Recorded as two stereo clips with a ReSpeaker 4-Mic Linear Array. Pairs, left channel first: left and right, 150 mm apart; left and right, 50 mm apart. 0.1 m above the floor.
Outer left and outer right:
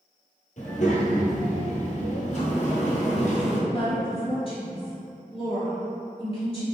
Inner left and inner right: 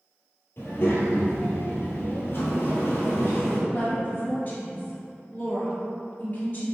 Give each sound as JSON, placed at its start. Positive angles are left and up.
{"t": 0.6, "sound": "a child speaking", "side_deg": 55, "distance_m": 1.4}
{"t": 2.3, "sound": "a sliding door", "side_deg": 55, "distance_m": 1.4}
{"t": 3.7, "sound": "a woman speaking", "side_deg": 40, "distance_m": 1.8}